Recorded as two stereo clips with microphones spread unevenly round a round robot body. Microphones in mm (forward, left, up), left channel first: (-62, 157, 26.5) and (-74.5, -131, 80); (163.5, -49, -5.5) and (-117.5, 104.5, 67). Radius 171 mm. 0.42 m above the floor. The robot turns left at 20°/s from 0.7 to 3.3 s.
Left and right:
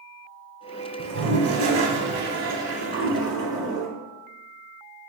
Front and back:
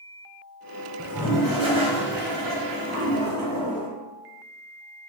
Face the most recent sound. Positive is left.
turn(degrees=-170)